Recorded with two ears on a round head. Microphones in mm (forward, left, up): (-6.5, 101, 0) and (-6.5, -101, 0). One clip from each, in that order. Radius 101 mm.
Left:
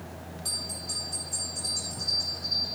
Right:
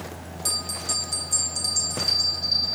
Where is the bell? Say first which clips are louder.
Right 6 dB; 75° right (ahead or behind), 4.5 m.